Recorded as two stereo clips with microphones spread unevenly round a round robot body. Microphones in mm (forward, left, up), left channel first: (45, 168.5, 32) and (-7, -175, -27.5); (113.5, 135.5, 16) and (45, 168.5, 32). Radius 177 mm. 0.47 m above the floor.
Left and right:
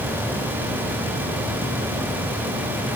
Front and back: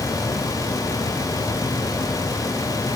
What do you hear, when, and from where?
Only background noise.